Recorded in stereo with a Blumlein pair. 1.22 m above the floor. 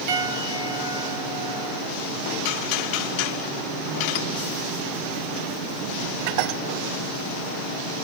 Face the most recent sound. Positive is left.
turn(degrees=-45)